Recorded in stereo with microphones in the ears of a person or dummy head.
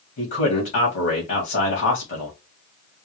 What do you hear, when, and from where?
0.2 s a man speaking: 40° left (ahead or behind), 2.5 m